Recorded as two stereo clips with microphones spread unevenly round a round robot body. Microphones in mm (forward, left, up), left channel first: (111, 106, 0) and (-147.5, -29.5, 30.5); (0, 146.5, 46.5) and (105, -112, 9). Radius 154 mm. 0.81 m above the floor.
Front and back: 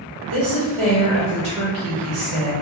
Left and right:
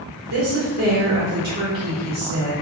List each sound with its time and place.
0.3 s a woman speaking: 125° right, 1.5 m